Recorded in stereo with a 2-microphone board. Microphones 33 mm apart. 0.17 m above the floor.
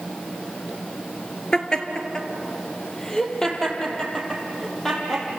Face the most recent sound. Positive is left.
turn(degrees=10)  # may be behind; listen again after turning